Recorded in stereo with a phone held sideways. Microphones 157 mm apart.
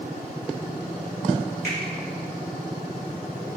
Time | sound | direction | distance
1.6 | a finger snap | 80° left | 1.2 m